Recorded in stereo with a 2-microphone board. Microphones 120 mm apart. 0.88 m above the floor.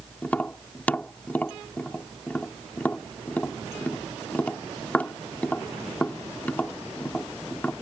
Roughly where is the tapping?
Centre.